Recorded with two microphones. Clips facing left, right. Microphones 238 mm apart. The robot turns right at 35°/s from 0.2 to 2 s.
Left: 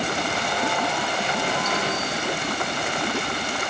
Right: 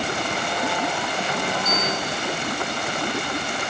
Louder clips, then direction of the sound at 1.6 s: Even; 10° left (ahead or behind).